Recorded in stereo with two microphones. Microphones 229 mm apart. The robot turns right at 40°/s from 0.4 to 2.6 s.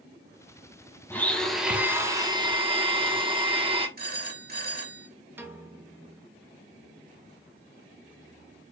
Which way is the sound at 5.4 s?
10° right (ahead or behind).